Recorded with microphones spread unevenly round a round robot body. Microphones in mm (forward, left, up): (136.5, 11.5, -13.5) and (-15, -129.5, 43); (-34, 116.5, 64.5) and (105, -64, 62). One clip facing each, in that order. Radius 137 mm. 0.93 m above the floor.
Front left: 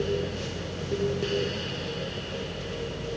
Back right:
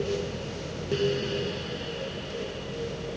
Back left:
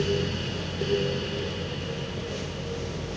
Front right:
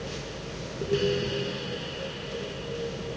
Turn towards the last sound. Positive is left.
No sound to turn to.